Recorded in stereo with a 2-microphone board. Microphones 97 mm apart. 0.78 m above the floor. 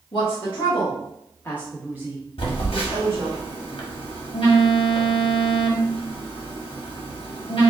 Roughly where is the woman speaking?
Left.